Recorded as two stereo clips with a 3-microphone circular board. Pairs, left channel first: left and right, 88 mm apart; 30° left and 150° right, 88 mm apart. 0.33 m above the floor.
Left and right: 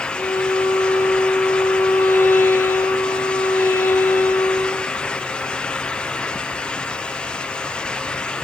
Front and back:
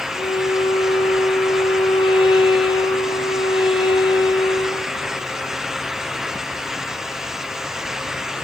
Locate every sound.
0.1 s a violin: 30° left, 1.3 m